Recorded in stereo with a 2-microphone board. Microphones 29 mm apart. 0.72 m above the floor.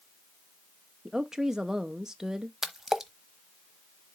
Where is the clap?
No clap in this recording.